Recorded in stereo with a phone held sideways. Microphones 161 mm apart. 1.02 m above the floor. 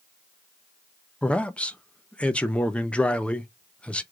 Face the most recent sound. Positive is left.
turn(degrees=5)  # may be behind; listen again after turning